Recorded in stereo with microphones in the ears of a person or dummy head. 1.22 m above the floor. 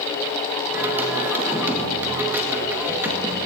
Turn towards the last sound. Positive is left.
turn(degrees=-10)  # may be behind; listen again after turning